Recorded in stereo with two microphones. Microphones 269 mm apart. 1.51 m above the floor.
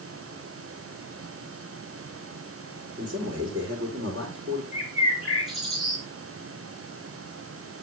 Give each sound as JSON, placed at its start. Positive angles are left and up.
{"t": 3.0, "sound": "a man speaking", "side_deg": -60, "distance_m": 5.0}
{"t": 4.7, "sound": "a bird", "side_deg": 0, "distance_m": 5.0}